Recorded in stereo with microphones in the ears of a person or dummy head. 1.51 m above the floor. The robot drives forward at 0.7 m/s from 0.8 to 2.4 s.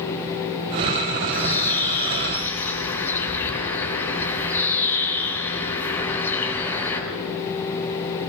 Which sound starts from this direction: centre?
A bird, at 1.3 s.